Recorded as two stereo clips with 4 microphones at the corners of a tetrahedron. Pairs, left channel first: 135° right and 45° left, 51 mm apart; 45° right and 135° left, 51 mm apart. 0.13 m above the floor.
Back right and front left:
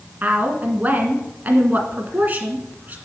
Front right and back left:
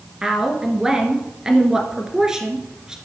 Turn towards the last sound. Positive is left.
turn(degrees=65)